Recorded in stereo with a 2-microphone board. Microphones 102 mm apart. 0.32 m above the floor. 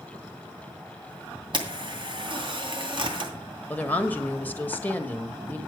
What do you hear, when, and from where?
1.5 s a camera shutter: 50° right (ahead or behind), 2.5 m
3.7 s a woman speaking: 15° left (ahead or behind), 1.1 m